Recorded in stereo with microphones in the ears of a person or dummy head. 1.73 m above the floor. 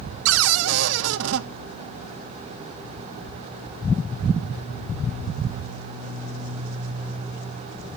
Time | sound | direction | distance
0.2 | a cupboard door | 75° right (ahead or behind) | 0.7 m